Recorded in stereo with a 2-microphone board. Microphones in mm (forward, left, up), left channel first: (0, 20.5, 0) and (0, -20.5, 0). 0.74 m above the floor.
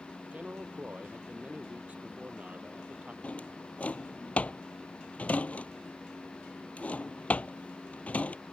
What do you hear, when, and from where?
0.3 s a man speaking: 40° right (ahead or behind)
3.2 s a drawer: 35° left (ahead or behind)